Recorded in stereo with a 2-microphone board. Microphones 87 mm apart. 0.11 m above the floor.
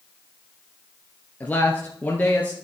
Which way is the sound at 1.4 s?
20° left (ahead or behind).